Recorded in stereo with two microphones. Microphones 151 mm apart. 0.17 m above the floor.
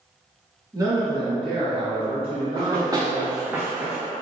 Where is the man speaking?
25° right (ahead or behind), 1.8 m; by 3.5 s 50° right (ahead or behind), 2.5 m.